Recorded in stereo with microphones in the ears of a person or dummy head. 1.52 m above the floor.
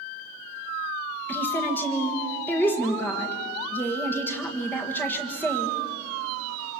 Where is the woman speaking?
10° left (ahead or behind), 1.8 m.